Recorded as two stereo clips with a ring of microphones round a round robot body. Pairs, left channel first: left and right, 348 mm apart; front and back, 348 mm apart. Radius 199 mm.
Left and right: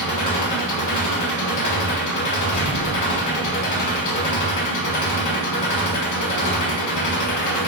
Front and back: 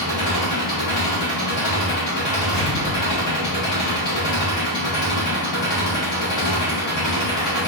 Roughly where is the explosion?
Ahead left.